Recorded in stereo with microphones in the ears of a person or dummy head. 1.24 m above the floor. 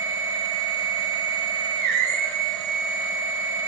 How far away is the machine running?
About 1.6 m.